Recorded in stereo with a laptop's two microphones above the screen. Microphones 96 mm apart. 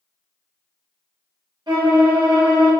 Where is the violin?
50° right (ahead or behind), 1.1 m.